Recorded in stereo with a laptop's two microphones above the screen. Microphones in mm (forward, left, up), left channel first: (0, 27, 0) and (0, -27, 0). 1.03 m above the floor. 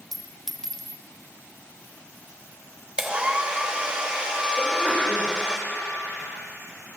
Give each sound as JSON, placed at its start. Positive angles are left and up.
{"t": 0.1, "sound": "a clink", "side_deg": 10, "distance_m": 0.7}
{"t": 3.0, "sound": "a hair dryer", "side_deg": -20, "distance_m": 1.0}
{"t": 4.6, "sound": "a sneeze", "side_deg": 30, "distance_m": 4.0}